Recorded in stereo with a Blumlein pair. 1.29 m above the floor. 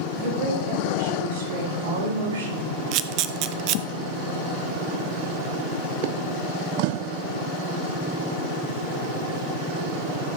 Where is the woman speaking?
50° right, 4.5 m; by 2.8 s 65° right, 3 m.